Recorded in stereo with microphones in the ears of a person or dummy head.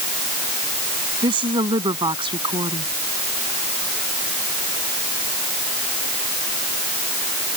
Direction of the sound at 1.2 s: 35° right (ahead or behind).